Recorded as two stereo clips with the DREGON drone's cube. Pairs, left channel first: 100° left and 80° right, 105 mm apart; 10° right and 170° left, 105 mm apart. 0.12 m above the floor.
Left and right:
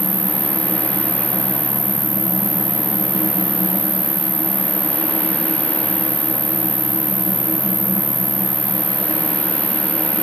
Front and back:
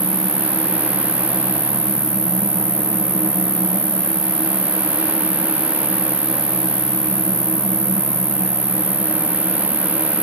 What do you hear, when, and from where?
0.0 s an insect: 15° left